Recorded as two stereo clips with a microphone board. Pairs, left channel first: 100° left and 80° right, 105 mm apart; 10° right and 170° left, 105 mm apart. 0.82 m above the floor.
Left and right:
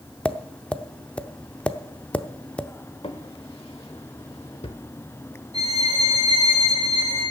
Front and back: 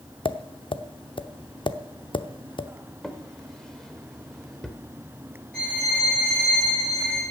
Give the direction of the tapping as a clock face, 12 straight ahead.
11 o'clock.